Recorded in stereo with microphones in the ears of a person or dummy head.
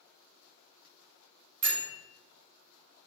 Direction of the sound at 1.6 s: 65° right (ahead or behind).